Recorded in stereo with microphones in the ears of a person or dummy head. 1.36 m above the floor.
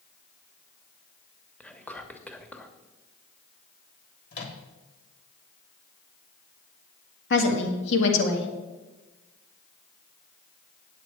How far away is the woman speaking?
About 1.9 m.